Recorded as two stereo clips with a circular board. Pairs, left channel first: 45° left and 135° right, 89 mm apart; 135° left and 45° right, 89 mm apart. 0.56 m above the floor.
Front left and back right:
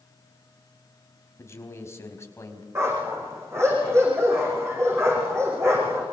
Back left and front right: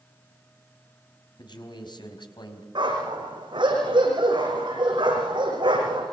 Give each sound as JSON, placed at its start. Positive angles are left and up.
{"t": 1.4, "sound": "a man speaking", "azimuth_deg": 105, "distance_m": 4.5}
{"t": 2.8, "sound": "a dog barking", "azimuth_deg": -75, "distance_m": 9.0}